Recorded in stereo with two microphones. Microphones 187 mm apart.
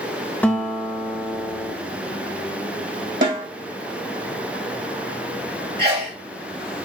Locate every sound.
0.4 s a guitar: 10° left (ahead or behind), 0.7 m
3.2 s a snare drum: 80° right, 1.8 m
5.8 s a sneeze: 60° right (ahead or behind), 1.9 m